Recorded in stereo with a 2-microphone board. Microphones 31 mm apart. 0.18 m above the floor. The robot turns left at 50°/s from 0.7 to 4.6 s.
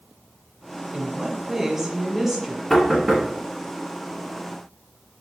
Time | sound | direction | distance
0.9 | a woman speaking | 20° right (ahead or behind) | 1.3 m
2.7 | knocking | 5° left (ahead or behind) | 1.5 m